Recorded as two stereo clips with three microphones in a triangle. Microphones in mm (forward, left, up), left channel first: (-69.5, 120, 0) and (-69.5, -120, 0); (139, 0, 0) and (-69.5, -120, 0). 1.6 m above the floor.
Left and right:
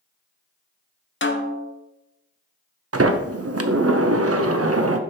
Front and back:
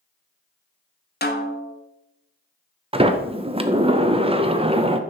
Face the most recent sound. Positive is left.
turn(degrees=-80)